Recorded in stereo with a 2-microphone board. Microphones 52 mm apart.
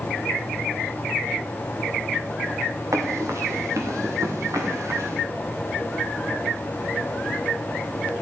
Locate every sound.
2.9 s running footsteps: 85° right, 4 m; by 5.2 s 80° right, 4 m